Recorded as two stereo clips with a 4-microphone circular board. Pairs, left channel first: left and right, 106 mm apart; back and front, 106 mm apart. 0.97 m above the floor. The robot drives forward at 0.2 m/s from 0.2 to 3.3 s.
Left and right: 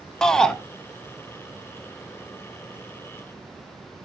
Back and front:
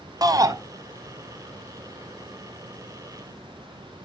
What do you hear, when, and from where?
0.2 s a shout: 15° left, 0.7 m